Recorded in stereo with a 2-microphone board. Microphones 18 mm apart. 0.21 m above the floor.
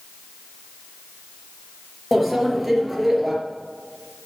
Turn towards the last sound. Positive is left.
turn(degrees=-10)  # may be behind; listen again after turning